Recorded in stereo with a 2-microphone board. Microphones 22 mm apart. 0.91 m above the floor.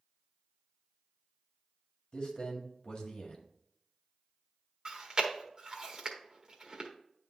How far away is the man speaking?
About 1.8 m.